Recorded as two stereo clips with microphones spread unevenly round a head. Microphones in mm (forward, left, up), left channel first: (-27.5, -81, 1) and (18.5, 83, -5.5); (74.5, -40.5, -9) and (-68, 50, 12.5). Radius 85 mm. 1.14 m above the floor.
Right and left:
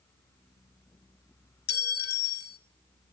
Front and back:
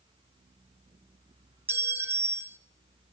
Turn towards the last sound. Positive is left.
turn(degrees=-140)